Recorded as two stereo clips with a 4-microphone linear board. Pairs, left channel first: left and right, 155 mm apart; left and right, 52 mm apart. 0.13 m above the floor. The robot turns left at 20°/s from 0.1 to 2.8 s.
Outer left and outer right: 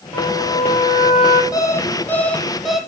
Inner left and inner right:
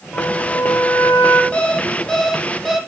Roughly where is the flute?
Centre.